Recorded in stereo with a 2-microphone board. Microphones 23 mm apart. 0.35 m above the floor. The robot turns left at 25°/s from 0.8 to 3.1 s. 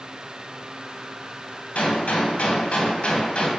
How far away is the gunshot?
About 0.5 m.